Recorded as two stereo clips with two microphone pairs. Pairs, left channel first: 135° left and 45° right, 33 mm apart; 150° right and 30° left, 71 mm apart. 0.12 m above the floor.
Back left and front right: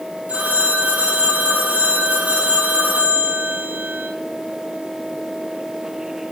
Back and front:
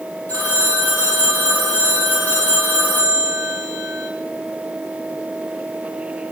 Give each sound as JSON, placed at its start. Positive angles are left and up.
{"t": 0.3, "sound": "a phone ringing", "azimuth_deg": -85, "distance_m": 1.9}